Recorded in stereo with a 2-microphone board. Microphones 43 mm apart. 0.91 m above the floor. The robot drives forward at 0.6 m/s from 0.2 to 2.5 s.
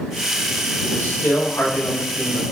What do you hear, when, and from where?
0.8 s a man speaking: 80° left, 4 m; by 2.4 s 70° left (ahead or behind), 4 m